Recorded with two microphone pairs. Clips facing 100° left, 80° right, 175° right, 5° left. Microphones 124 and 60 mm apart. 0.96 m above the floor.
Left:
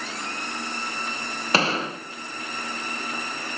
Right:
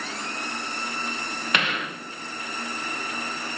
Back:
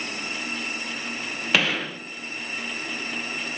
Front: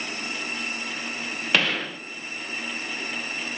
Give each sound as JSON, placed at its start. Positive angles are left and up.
{"t": 1.5, "sound": "a gunshot", "azimuth_deg": 100, "distance_m": 0.5}